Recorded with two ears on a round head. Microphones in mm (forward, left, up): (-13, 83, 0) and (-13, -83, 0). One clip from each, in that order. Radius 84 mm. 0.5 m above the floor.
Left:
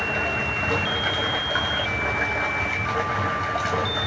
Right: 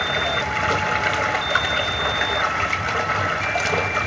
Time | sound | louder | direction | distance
0.0 | running water | right 3 dB | 60° right (ahead or behind) | 1.9 m